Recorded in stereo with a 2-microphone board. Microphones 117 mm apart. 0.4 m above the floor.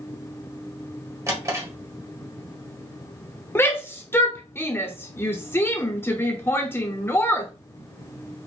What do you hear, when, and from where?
1.3 s a drawer: 30° right (ahead or behind), 1.5 m
3.5 s a shout: 20° left (ahead or behind), 0.8 m